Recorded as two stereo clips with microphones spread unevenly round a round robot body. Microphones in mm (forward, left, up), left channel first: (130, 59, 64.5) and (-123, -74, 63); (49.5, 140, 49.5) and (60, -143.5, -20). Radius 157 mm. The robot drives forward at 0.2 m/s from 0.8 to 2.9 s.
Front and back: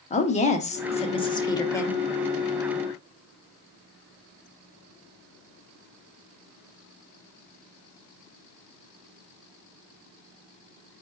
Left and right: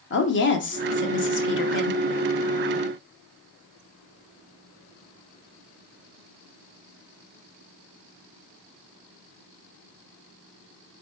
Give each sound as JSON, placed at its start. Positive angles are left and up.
{"t": 0.1, "sound": "a woman speaking", "azimuth_deg": 65, "distance_m": 0.8}